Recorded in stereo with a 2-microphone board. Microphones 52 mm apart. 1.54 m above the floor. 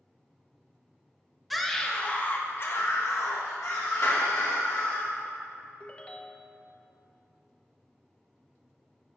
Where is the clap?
80° left, 2.5 m.